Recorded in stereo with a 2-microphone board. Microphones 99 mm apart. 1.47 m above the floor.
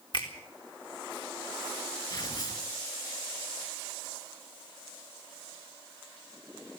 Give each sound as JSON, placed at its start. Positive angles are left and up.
{"t": 0.1, "sound": "a finger snap", "side_deg": 55, "distance_m": 4.0}
{"t": 2.1, "sound": "tearing paper", "side_deg": 45, "distance_m": 5.0}